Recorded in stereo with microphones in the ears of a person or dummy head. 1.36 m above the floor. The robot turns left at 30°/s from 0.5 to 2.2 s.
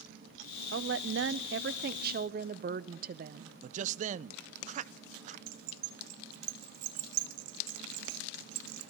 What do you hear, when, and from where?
0.7 s a woman speaking: 80° right, 0.6 m; by 3.5 s 125° right, 0.6 m
3.6 s a man speaking: 45° right (ahead or behind), 0.6 m
5.5 s keys jangling: 60° right (ahead or behind), 0.9 m